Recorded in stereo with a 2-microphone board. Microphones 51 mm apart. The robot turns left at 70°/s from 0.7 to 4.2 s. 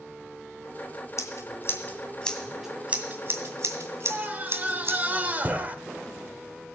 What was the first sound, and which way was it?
Scissors, 70° left (ahead or behind).